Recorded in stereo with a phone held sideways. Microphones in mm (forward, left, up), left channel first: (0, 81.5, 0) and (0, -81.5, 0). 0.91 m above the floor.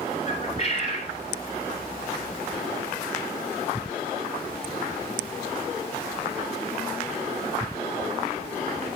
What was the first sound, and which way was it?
A bird, 40° left (ahead or behind).